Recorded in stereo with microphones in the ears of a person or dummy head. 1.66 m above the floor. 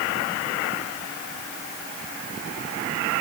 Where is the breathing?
No breathing in this recording.